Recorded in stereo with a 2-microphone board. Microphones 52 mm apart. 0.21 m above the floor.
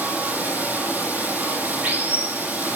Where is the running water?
35° right (ahead or behind), 3.5 m.